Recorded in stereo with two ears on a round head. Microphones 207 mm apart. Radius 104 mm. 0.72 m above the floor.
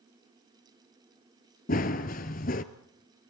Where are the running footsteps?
35° left (ahead or behind), 0.9 m.